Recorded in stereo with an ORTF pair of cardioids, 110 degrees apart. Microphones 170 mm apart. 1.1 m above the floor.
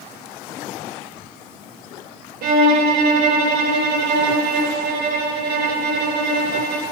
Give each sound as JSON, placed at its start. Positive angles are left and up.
{"t": 2.4, "sound": "a violin", "azimuth_deg": -70, "distance_m": 0.8}